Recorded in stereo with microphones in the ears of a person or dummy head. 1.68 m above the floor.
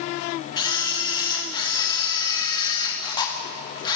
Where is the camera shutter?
25° left (ahead or behind), 0.9 m.